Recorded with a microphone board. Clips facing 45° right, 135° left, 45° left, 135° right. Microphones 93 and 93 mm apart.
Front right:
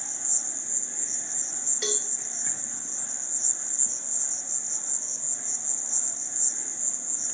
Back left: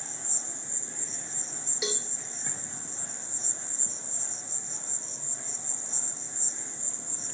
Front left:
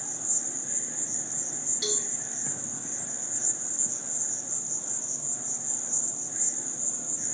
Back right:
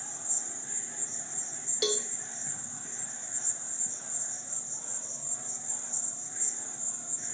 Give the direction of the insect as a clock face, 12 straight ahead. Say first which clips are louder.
Even, front left 4 dB; 10 o'clock.